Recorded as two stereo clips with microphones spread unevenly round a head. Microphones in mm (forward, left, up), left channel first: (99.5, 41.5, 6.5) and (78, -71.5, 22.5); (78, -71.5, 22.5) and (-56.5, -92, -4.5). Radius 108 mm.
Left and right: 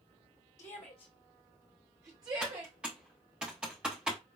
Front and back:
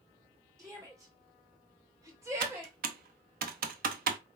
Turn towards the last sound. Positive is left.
turn(degrees=180)